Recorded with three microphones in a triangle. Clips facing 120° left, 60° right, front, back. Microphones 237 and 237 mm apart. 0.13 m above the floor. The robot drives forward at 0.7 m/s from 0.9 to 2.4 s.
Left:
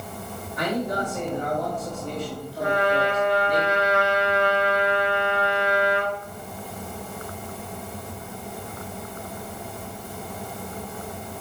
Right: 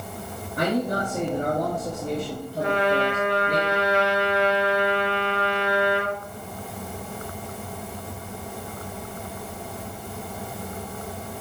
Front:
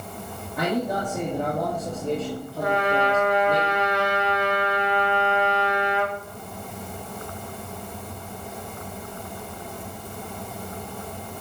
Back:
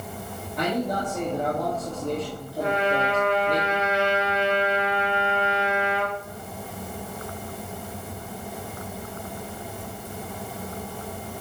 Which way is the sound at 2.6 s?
120° right.